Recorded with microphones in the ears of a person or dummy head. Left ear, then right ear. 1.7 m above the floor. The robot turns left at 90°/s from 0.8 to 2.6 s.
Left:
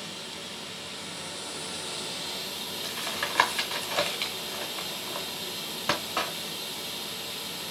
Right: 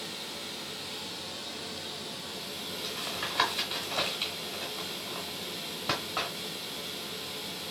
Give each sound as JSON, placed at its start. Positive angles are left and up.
{"t": 0.0, "sound": "running water", "azimuth_deg": 175, "distance_m": 0.8}
{"t": 2.8, "sound": "tapping", "side_deg": 20, "distance_m": 0.7}